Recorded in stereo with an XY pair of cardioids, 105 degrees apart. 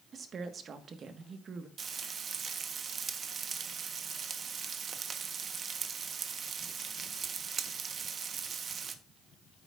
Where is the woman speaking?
50° right, 1.4 m.